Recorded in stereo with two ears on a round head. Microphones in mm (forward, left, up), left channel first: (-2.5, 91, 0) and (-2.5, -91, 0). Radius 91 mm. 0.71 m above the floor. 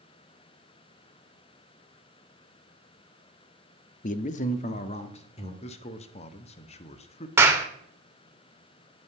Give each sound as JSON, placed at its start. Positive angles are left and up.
{"t": 4.0, "sound": "a man speaking", "side_deg": 40, "distance_m": 0.6}
{"t": 5.6, "sound": "a man speaking", "side_deg": 30, "distance_m": 0.8}
{"t": 7.4, "sound": "a clap", "side_deg": -10, "distance_m": 1.4}